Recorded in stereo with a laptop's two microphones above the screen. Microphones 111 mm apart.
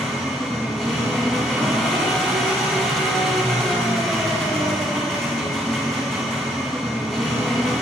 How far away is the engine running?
About 2.5 m.